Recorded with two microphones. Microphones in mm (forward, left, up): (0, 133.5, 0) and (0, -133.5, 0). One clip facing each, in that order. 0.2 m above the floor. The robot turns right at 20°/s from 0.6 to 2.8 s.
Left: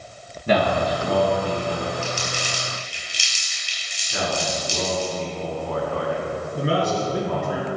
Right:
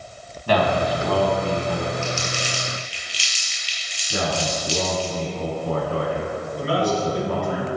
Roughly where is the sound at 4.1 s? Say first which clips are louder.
Right 1 dB; right.